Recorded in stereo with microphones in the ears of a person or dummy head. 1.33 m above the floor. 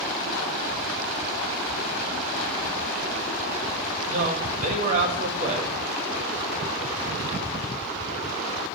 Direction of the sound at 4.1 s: 40° right (ahead or behind).